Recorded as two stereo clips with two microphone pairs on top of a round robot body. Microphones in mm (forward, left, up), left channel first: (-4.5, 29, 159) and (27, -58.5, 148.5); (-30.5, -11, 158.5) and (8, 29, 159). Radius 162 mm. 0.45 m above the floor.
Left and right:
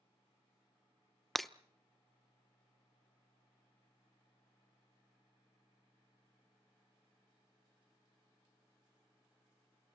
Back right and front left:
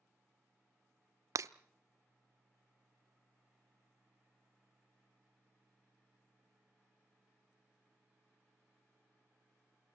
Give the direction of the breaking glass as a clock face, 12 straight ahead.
11 o'clock.